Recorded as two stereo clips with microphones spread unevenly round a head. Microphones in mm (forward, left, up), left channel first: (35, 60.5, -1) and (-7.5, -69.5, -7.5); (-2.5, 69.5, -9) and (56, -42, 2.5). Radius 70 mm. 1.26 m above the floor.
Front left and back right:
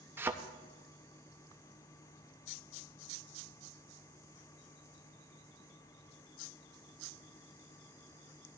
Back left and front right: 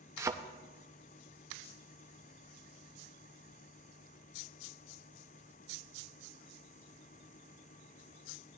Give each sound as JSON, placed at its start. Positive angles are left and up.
{"t": 0.2, "sound": "a thud", "azimuth_deg": -45, "distance_m": 0.6}